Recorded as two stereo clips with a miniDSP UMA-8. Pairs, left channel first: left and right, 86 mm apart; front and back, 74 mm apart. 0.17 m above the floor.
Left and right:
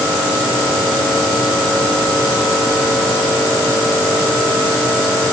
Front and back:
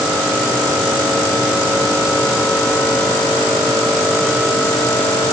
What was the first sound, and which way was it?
Only background noise.